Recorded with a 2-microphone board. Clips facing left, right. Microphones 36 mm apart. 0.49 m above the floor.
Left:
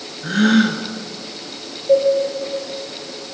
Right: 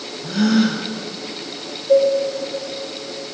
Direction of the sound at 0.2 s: 55° left (ahead or behind).